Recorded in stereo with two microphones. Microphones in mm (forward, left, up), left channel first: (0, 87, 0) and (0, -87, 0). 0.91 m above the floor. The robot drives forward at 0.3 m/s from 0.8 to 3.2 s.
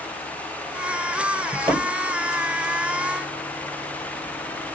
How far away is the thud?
About 1.9 m.